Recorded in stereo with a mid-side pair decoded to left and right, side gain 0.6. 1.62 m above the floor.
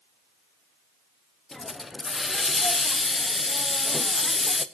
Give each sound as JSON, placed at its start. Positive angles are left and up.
{"t": 1.5, "sound": "a hiss", "azimuth_deg": 15, "distance_m": 0.9}